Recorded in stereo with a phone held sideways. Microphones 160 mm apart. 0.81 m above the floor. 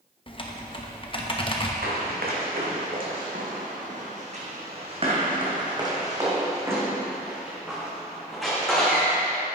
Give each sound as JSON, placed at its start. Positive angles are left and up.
{"t": 0.3, "sound": "typing on a keyboard", "side_deg": 35, "distance_m": 0.8}
{"t": 1.8, "sound": "running footsteps", "side_deg": -70, "distance_m": 2.5}